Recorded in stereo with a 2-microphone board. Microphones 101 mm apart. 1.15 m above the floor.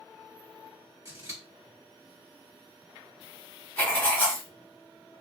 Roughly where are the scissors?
Right.